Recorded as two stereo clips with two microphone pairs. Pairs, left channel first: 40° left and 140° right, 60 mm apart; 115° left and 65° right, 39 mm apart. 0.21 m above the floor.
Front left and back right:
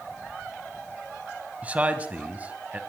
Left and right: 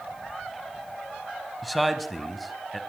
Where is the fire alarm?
I don't hear a fire alarm.